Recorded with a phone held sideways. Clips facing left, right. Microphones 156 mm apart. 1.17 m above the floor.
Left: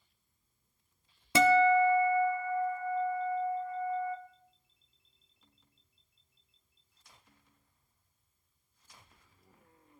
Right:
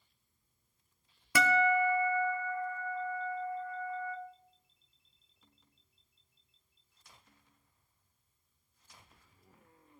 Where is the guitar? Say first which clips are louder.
Left 5 dB; 25° left (ahead or behind), 0.6 m.